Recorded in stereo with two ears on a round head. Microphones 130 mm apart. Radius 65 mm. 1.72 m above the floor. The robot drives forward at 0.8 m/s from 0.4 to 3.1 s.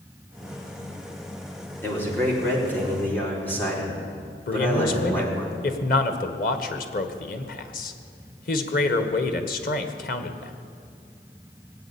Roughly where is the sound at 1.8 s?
Centre.